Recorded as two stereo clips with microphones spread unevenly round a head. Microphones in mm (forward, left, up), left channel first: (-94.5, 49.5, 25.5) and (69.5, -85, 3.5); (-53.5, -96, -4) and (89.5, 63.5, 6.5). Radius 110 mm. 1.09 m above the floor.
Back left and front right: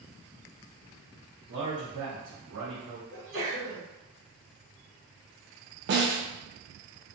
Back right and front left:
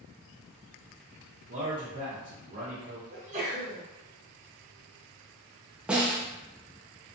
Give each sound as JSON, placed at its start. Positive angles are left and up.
{"t": 1.5, "sound": "a man speaking", "azimuth_deg": -5, "distance_m": 0.7}
{"t": 3.1, "sound": "a sneeze", "azimuth_deg": -10, "distance_m": 1.1}
{"t": 5.9, "sound": "a snare drum", "azimuth_deg": -30, "distance_m": 0.6}